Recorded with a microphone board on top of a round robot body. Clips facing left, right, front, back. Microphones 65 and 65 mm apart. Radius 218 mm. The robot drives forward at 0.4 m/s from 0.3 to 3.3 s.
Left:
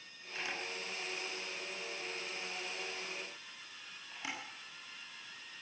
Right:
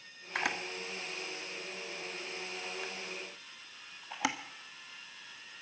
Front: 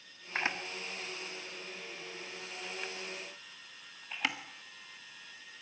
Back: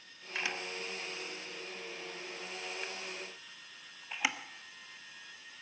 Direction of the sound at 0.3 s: 60° right.